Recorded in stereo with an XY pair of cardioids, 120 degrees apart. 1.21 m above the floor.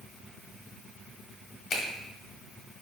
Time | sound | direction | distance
1.7 | a finger snap | 60° left | 1.3 m